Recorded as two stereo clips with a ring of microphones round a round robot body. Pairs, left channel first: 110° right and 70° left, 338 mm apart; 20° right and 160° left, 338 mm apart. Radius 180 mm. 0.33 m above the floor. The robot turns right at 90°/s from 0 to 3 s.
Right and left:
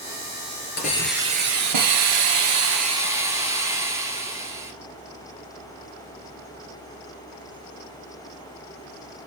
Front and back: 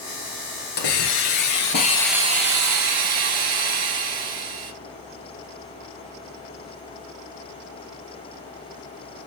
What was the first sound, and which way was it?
A hiss, 50° right.